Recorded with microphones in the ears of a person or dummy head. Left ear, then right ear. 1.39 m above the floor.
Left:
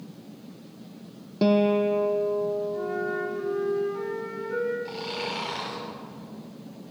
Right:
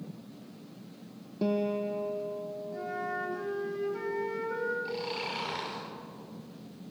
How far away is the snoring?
About 5 m.